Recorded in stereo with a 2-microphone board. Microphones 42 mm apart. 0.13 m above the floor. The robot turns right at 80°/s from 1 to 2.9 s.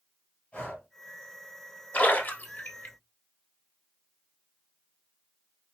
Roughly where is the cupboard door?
No cupboard door in this recording.